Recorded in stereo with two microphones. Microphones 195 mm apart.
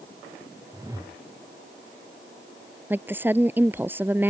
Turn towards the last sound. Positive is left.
turn(degrees=-10)  # may be behind; listen again after turning